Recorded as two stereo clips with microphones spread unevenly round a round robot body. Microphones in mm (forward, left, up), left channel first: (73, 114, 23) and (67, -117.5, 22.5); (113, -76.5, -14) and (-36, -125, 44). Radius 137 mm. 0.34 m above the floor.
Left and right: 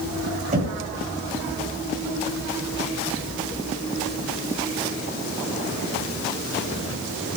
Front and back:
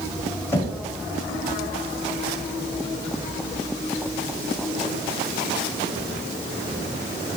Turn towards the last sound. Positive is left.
turn(degrees=-40)